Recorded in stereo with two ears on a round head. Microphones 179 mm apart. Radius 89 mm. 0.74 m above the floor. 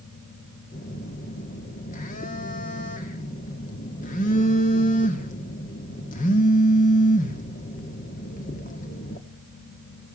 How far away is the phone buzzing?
About 1.9 m.